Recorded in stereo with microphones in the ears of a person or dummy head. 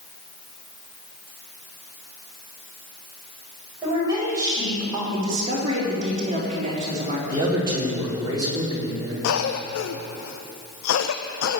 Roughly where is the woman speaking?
Centre.